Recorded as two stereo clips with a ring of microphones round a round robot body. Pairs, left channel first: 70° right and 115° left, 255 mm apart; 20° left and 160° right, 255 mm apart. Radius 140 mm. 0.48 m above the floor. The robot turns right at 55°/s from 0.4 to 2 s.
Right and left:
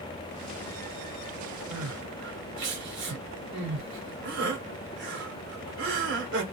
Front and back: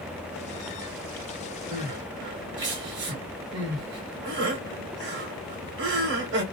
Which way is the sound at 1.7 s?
140° left.